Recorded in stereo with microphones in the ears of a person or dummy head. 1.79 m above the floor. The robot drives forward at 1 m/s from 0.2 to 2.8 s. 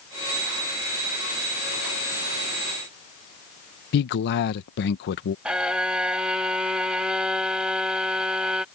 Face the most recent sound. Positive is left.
turn(degrees=-10)  # may be behind; listen again after turning